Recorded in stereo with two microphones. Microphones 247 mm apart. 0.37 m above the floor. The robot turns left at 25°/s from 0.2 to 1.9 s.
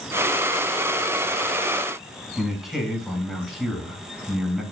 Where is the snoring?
I don't hear snoring.